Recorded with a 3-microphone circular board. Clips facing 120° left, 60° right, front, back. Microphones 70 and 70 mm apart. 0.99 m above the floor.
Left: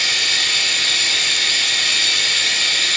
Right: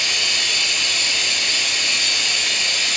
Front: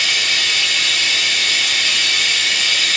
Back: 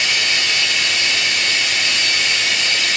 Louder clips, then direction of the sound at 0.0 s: Left 2 dB, even; 120° left.